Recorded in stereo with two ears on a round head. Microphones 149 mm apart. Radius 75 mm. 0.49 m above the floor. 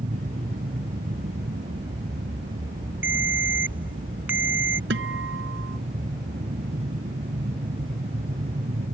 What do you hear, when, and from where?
0.0 s an aircraft: 45° right (ahead or behind)
3.0 s a ringtone: 10° right (ahead or behind)
4.9 s a guitar: 80° right